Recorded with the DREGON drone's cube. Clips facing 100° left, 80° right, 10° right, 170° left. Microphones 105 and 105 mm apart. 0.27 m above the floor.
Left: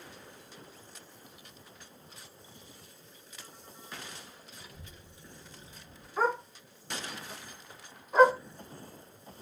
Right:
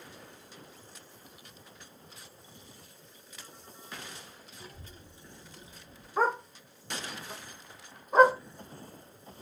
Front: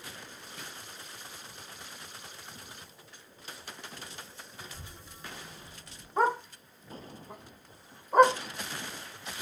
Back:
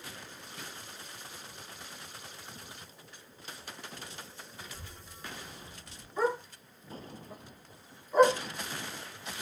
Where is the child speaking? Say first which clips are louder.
Right 2 dB, front 2 dB; 55° right, 1.2 m; by 6.1 s 160° right, 1.2 m.